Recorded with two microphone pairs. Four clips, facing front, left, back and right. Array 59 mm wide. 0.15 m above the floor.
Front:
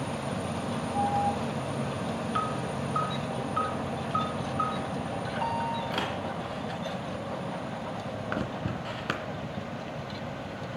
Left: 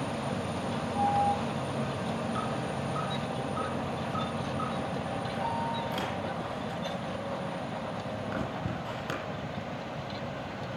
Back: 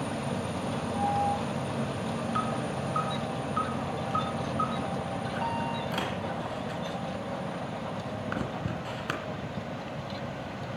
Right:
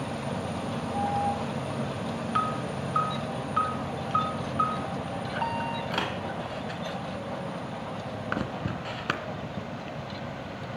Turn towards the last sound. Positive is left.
turn(degrees=-85)